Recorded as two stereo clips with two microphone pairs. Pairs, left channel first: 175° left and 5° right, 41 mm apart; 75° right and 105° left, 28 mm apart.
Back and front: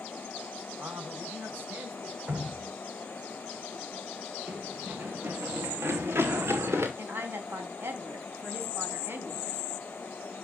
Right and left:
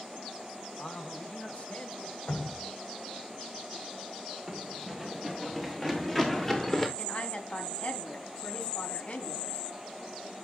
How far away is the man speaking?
About 3 m.